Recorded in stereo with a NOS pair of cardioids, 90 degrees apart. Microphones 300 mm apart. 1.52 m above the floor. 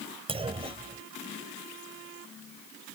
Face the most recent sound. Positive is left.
turn(degrees=-20)